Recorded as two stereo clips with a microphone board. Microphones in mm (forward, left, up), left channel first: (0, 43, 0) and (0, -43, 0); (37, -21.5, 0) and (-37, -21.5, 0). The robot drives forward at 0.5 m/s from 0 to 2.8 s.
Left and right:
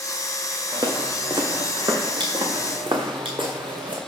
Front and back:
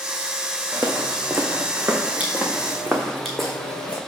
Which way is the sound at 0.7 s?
125° right.